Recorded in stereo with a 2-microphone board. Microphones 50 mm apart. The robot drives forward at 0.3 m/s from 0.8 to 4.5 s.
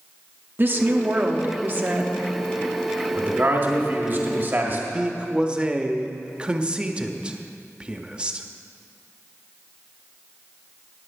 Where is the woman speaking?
40° right (ahead or behind), 0.9 m; by 2.2 s 35° right (ahead or behind), 1.0 m.